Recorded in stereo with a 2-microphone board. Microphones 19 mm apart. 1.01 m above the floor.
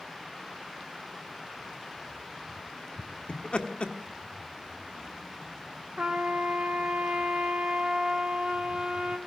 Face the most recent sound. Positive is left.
turn(degrees=-70)  # may be behind; listen again after turning